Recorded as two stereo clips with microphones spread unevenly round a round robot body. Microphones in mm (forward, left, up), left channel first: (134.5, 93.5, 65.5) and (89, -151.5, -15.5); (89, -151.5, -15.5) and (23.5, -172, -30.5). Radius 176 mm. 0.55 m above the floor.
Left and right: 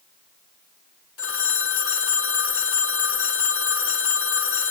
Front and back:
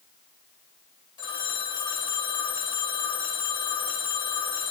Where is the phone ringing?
40° left, 1.6 m.